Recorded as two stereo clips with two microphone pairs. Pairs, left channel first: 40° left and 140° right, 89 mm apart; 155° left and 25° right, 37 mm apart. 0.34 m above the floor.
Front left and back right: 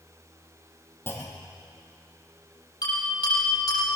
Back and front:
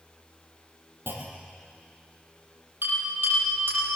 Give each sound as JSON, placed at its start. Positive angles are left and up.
{"t": 1.1, "sound": "a clunk", "azimuth_deg": -20, "distance_m": 2.5}
{"t": 2.8, "sound": "a bell", "azimuth_deg": -5, "distance_m": 7.0}